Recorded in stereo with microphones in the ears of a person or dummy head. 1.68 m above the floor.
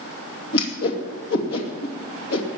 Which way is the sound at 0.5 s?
80° left.